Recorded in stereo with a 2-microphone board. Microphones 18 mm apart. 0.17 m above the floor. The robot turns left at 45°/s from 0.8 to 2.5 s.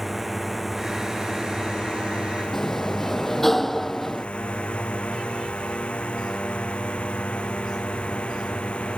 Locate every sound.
0.0 s a drone: 5° right (ahead or behind); by 9.0 s 75° left (ahead or behind)
2.5 s a sliding door: 15° left (ahead or behind)